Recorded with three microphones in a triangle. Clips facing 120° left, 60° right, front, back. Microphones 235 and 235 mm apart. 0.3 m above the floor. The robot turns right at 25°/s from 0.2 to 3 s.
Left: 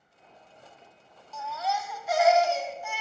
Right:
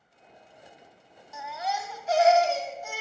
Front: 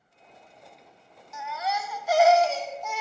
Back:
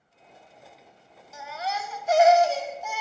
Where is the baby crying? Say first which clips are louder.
Left 1 dB, front 1 dB; 135° right, 0.8 m; by 3.0 s 90° right, 0.8 m.